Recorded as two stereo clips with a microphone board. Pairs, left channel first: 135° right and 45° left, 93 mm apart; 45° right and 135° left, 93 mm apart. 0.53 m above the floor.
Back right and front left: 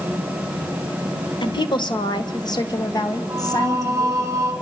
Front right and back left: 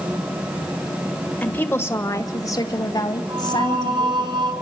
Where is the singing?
105° left, 3.5 m.